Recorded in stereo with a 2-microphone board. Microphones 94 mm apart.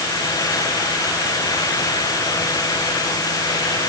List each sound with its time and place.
Only background noise.